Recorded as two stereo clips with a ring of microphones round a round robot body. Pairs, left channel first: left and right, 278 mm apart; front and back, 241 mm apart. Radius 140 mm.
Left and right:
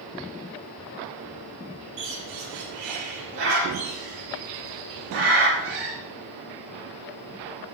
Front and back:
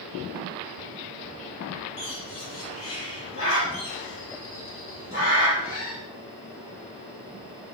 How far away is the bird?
About 5.5 m.